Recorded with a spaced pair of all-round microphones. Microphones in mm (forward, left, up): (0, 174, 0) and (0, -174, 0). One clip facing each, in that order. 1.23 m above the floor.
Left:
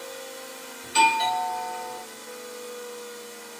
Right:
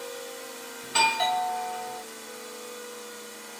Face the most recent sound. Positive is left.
turn(degrees=-65)  # may be behind; listen again after turning